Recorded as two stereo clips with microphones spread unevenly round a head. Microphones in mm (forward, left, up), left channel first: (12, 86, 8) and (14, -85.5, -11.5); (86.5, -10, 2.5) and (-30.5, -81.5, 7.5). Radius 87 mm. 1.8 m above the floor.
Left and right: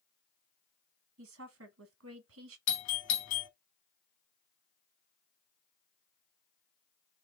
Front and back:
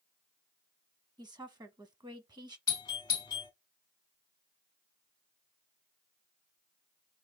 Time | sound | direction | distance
1.2 | a woman speaking | 90° right | 0.8 m
2.7 | a doorbell | 100° left | 0.9 m